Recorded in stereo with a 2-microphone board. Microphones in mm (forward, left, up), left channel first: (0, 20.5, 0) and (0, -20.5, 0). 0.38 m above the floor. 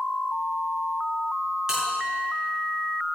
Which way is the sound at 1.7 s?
20° right (ahead or behind).